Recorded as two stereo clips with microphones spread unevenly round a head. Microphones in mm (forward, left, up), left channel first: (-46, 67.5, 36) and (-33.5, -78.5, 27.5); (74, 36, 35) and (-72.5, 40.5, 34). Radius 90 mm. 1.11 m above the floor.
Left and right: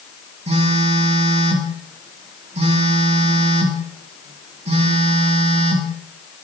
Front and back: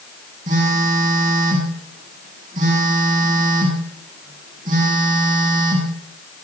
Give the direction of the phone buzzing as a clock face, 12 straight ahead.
4 o'clock.